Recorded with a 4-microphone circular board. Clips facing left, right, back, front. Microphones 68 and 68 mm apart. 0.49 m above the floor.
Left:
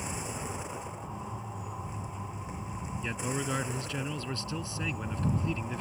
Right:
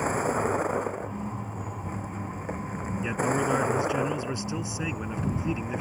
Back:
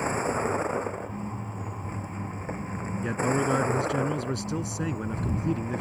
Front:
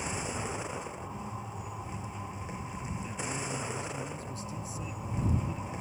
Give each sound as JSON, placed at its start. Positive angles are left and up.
{"t": 0.0, "sound": "a vehicle", "azimuth_deg": -130}
{"t": 3.0, "sound": "a man speaking", "azimuth_deg": -160}